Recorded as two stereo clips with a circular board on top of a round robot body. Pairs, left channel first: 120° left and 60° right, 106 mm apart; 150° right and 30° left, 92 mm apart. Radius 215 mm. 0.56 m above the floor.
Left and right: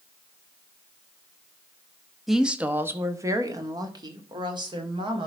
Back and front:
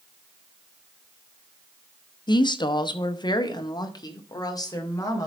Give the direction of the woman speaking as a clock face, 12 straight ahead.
5 o'clock.